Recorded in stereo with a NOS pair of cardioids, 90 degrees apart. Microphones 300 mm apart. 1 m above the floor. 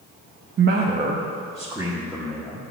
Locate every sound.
0.6 s a man speaking: 40° right, 0.8 m; by 2.6 s straight ahead, 1.9 m